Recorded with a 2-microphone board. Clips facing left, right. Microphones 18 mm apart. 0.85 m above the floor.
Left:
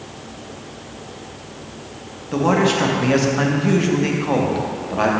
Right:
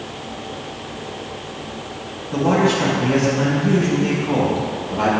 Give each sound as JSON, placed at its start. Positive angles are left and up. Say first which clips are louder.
{"t": 2.3, "sound": "a man speaking", "louder": "even", "side_deg": 45, "distance_m": 1.0}